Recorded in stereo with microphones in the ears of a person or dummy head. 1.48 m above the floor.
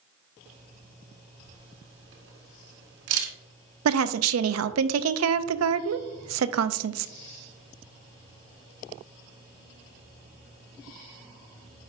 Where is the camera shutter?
85° right, 1.4 m.